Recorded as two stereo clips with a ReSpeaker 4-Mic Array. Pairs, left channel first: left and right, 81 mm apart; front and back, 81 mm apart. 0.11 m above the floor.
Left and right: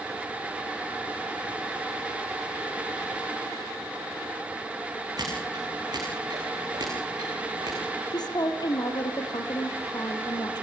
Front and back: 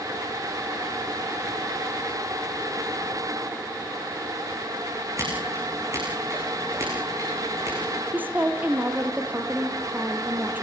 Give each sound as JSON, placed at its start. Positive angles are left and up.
{"t": 5.2, "sound": "scissors", "azimuth_deg": -125, "distance_m": 9.0}
{"t": 8.1, "sound": "a woman speaking", "azimuth_deg": 115, "distance_m": 3.0}